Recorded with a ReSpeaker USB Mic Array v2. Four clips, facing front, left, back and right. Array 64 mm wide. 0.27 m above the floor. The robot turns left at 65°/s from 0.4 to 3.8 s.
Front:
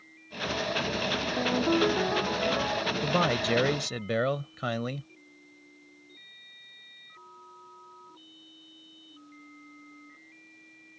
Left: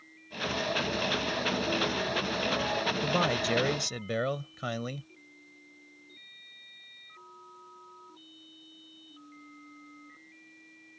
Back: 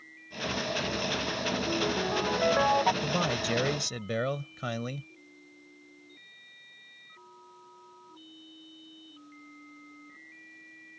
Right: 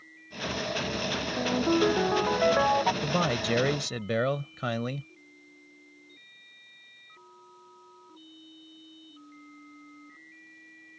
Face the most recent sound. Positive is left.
turn(degrees=-50)